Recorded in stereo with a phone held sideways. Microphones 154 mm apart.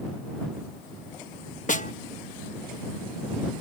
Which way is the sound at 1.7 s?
55° left (ahead or behind).